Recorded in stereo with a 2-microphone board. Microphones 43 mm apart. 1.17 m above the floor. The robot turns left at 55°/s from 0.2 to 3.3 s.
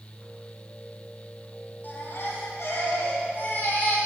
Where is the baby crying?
135° left, 5 m; by 4.0 s 55° left, 5 m.